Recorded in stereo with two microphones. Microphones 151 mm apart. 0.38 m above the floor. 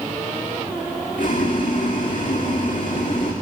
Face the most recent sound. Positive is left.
turn(degrees=70)  # may be behind; listen again after turning